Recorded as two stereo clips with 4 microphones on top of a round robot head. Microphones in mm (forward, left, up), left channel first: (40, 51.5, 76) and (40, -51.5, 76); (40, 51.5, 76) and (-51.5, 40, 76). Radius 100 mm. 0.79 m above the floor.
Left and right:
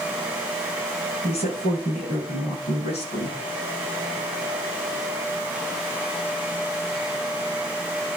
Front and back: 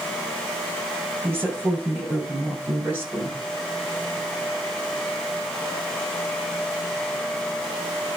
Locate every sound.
1.2 s a woman speaking: 115° left, 9 m; by 3.4 s 110° left, 8 m